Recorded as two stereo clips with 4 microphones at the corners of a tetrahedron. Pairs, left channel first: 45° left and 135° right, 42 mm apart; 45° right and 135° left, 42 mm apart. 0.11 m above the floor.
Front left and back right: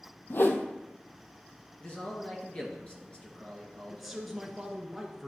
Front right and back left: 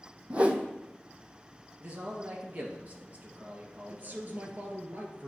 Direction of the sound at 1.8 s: 95° left.